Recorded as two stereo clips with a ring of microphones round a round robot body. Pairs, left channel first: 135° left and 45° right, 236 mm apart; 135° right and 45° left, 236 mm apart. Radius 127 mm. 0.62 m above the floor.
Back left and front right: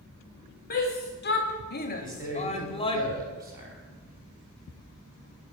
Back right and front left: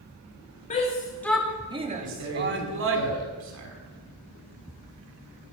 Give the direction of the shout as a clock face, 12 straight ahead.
6 o'clock.